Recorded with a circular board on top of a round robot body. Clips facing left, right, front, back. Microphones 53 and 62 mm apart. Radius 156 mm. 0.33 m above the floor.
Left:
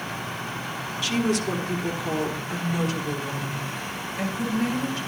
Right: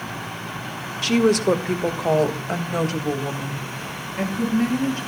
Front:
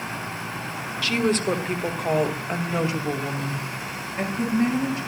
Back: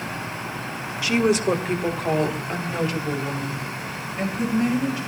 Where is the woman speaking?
110° right, 1.6 m; by 5.0 s 50° right, 4 m.